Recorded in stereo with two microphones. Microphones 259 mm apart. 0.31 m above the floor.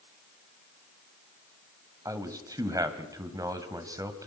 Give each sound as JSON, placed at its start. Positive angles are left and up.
{"t": 2.0, "sound": "a man speaking", "side_deg": -15, "distance_m": 1.6}